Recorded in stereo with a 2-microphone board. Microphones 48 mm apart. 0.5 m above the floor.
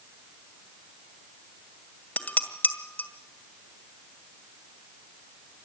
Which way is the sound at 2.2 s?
30° left (ahead or behind).